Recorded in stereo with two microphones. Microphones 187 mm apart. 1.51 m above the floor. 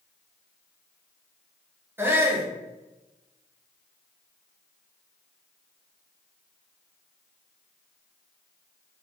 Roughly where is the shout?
Centre.